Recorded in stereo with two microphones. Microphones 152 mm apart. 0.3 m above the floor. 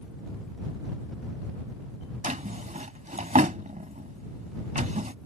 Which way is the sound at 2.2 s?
55° right (ahead or behind).